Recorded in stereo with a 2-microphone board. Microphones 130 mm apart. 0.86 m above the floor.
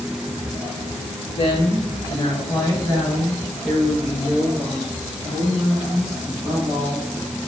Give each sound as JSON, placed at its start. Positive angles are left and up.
{"t": 1.4, "sound": "a woman speaking", "side_deg": 40, "distance_m": 1.1}